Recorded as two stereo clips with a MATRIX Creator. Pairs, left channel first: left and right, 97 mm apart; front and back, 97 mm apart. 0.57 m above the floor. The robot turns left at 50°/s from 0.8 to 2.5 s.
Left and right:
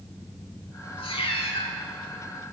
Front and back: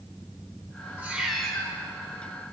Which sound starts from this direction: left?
A cat meowing, at 1.0 s.